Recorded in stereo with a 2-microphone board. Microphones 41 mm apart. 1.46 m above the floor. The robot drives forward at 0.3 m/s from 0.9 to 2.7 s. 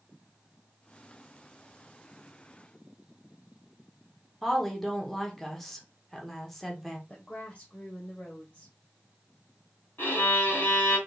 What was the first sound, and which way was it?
A woman speaking, 5° left (ahead or behind).